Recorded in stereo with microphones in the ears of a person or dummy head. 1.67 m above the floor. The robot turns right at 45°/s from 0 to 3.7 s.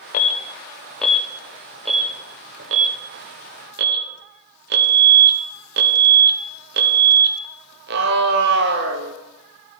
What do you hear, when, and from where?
0.1 s an alarm: 40° left (ahead or behind), 1.0 m; by 9.1 s 55° right (ahead or behind), 1.0 m